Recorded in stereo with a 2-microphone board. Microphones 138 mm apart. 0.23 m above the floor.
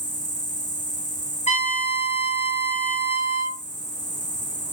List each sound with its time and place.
0.0 s an insect: 65° left (ahead or behind), 2.5 m
1.5 s a trumpet: 65° left (ahead or behind), 4 m